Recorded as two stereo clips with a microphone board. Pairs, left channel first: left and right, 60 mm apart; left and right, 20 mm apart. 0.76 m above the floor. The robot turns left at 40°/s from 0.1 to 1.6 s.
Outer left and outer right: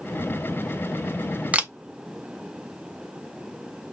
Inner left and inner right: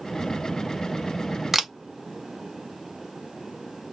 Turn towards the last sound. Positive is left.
turn(degrees=-20)  # may be behind; listen again after turning